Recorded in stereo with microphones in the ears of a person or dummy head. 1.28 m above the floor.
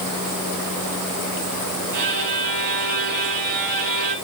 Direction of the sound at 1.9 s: 65° right (ahead or behind).